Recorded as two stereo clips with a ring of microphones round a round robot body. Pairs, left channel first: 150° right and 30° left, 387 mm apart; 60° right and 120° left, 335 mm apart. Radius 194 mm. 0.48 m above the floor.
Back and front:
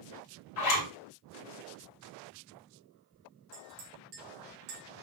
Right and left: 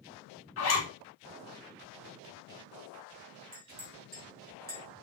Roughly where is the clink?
Ahead left.